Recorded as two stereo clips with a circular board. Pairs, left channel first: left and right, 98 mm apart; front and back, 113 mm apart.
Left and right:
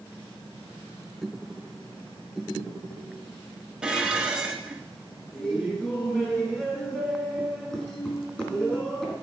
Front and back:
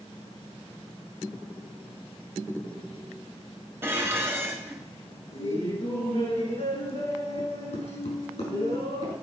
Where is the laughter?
10° left, 5 m.